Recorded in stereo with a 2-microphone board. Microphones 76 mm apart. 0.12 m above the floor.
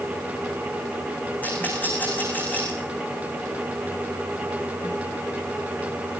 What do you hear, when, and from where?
1.4 s a rattle: 20° left (ahead or behind), 6.5 m